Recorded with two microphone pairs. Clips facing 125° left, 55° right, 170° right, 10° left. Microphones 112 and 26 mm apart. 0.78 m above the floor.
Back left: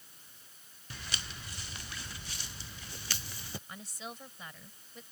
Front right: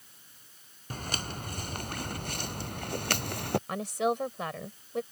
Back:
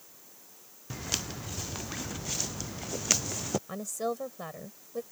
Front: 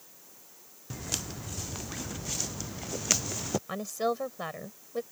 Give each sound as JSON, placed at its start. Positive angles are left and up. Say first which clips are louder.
{"t": 0.9, "sound": "footsteps", "louder": "front right 8 dB, back 2 dB", "azimuth_deg": -95}
{"t": 3.7, "sound": "a woman speaking", "louder": "front right 17 dB, front 3 dB", "azimuth_deg": -40}